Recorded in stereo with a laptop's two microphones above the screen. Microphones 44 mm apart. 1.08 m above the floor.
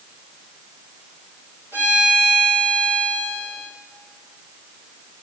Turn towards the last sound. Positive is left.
turn(degrees=-50)  # may be behind; listen again after turning